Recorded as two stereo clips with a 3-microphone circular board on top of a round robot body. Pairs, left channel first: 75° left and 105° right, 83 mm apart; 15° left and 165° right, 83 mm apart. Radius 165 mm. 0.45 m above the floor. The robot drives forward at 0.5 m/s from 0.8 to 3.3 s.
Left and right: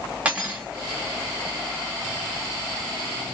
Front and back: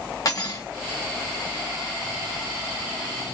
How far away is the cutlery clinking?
About 1.7 m.